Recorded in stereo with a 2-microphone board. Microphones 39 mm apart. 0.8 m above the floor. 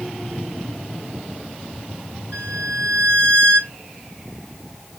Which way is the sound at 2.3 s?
75° right (ahead or behind).